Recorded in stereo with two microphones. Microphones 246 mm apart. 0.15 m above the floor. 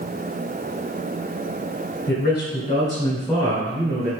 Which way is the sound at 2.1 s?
45° left (ahead or behind).